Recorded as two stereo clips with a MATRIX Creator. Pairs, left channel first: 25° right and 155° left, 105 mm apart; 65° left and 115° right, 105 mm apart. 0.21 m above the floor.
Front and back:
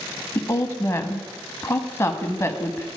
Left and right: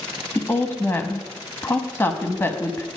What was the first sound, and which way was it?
A woman speaking, 20° left.